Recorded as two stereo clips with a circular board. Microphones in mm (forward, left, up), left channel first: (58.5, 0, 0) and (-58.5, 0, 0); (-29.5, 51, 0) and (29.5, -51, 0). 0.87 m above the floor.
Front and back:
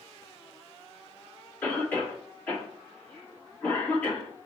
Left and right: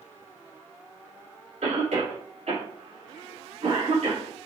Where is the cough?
75° right, 2.5 m.